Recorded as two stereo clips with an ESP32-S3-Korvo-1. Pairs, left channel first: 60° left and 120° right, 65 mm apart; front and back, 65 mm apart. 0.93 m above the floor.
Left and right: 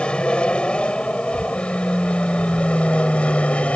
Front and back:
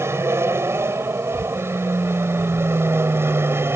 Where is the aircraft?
135° left; by 3.8 s 130° left.